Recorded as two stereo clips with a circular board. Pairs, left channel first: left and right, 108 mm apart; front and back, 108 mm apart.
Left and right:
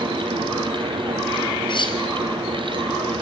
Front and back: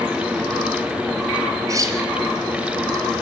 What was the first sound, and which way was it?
Cutlery clinking, 125° left.